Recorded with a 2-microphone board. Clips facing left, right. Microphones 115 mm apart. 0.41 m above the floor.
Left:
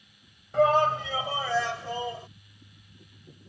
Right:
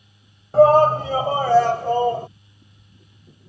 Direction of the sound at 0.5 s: 35° right (ahead or behind).